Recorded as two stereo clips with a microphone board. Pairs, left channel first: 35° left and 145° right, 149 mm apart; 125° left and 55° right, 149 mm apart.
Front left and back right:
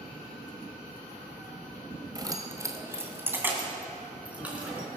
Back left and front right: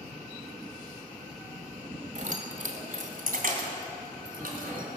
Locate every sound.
2.1 s keys jangling: 85° right, 1.5 m; by 4.9 s 65° right, 4 m